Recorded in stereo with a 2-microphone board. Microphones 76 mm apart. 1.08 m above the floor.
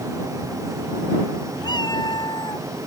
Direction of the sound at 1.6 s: 70° left (ahead or behind).